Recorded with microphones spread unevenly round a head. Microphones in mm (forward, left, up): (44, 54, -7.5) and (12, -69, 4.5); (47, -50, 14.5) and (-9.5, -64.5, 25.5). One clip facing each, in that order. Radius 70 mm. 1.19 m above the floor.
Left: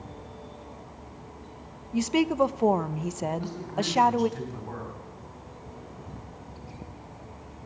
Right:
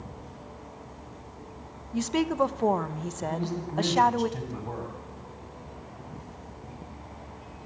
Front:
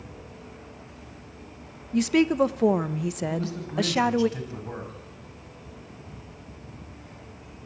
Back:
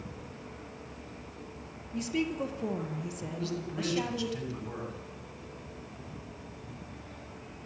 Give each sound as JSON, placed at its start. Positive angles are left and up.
{"t": 1.9, "sound": "a woman speaking", "azimuth_deg": 0, "distance_m": 0.9}
{"t": 3.3, "sound": "a man speaking", "azimuth_deg": -45, "distance_m": 6.5}